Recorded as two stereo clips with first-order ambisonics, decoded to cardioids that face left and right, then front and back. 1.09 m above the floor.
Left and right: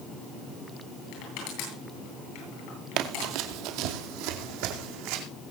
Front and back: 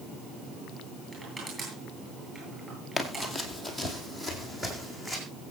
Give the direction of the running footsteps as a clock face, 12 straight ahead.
3 o'clock.